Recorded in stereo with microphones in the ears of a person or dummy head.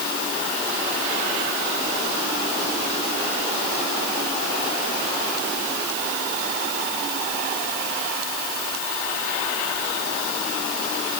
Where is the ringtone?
No ringtone in this recording.